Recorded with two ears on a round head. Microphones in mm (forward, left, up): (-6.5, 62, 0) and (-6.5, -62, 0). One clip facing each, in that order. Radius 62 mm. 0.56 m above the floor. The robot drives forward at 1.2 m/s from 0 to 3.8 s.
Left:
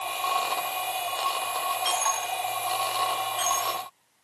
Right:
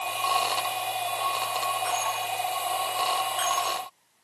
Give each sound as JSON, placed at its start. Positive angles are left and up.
{"t": 1.9, "sound": "a dropped coin", "side_deg": 30}